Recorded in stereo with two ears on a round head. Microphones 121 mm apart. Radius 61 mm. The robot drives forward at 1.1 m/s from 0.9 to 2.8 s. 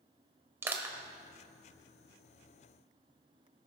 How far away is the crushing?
About 1.6 m.